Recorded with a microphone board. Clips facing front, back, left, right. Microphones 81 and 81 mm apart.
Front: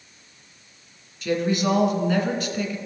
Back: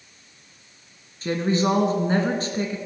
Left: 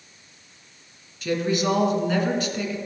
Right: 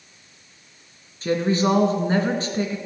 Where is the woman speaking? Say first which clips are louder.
Back 1 dB, right 3 dB; 135° right, 1.8 m.